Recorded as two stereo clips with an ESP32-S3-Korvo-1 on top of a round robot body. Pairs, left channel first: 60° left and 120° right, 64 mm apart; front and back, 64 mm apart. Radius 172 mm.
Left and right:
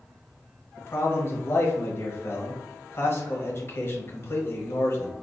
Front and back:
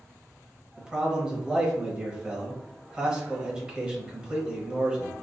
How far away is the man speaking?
About 1.1 m.